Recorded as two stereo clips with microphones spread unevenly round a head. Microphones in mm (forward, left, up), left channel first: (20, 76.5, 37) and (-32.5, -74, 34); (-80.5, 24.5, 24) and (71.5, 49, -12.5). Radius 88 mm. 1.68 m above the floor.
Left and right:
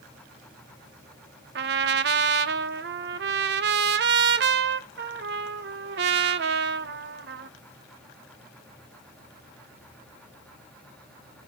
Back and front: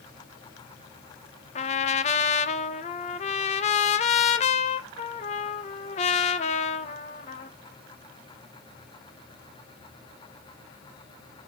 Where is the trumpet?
130° right, 0.7 m.